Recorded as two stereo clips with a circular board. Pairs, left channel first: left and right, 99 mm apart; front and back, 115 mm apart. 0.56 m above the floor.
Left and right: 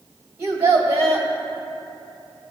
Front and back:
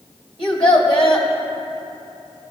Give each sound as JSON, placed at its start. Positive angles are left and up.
{"t": 0.4, "sound": "a child speaking", "azimuth_deg": -35, "distance_m": 2.0}